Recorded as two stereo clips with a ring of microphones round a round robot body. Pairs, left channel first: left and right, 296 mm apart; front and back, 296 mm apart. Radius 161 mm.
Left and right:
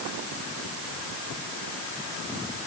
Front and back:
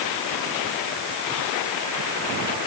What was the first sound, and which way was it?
Only background noise.